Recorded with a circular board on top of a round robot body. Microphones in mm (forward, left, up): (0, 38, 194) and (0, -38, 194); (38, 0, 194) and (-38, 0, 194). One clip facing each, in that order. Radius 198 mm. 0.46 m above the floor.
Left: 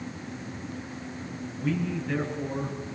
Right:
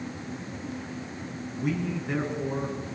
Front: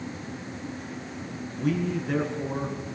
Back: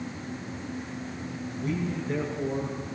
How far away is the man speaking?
About 7.5 m.